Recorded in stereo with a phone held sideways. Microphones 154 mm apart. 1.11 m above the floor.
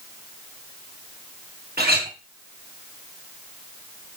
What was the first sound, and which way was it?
A clink, 90° right.